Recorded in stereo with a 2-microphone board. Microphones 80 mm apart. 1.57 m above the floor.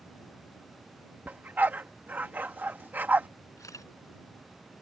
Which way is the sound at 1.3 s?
20° right (ahead or behind).